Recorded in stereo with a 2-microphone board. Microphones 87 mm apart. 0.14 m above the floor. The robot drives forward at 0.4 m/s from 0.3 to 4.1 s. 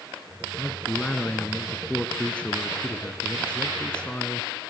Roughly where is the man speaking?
Centre.